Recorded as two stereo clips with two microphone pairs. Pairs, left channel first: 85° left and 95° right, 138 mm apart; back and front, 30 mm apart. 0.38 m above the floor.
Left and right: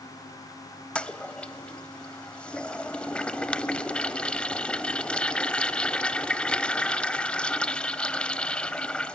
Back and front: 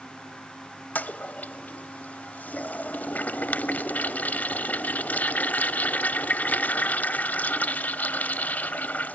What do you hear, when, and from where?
0.9 s a toilet flushing: 170° left, 0.8 m